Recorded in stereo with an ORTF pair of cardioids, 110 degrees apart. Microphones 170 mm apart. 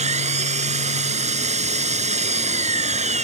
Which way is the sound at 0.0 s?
40° right.